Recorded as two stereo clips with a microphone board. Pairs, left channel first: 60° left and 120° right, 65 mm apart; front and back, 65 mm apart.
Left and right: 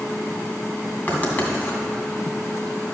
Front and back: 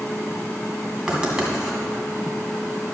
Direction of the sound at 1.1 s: 110° left.